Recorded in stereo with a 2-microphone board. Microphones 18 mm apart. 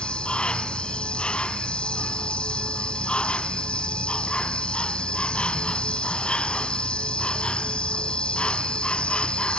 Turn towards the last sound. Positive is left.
turn(degrees=70)  # may be behind; listen again after turning